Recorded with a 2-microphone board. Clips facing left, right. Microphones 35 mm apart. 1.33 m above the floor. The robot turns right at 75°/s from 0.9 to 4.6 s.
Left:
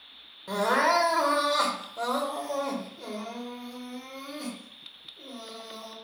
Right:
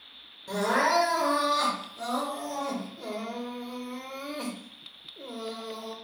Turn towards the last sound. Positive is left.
turn(degrees=-55)